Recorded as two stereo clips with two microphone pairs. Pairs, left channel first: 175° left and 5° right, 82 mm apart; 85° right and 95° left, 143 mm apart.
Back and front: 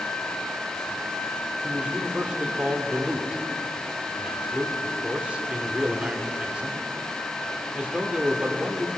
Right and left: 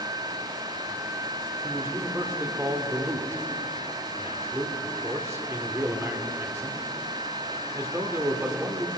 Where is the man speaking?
50° left, 1.2 m.